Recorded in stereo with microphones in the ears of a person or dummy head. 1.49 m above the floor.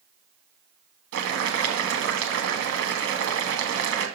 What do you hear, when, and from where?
1.1 s boiling: 65° right (ahead or behind), 1.4 m